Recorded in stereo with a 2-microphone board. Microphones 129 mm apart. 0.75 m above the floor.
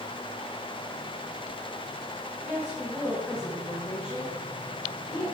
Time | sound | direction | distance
2.4 | a woman speaking | 5° left (ahead or behind) | 6 m